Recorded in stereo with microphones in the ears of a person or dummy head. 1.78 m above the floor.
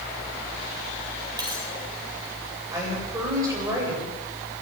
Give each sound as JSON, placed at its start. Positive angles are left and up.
{"t": 1.4, "sound": "a dropped coin", "side_deg": -20, "distance_m": 3.0}
{"t": 2.7, "sound": "a woman speaking", "side_deg": -20, "distance_m": 9.0}